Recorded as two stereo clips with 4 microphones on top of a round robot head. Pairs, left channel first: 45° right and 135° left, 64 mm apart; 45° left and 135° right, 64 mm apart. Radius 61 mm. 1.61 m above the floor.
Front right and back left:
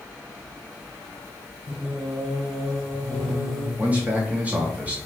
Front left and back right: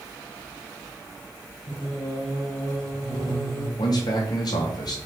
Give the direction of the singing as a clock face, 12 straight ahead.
10 o'clock.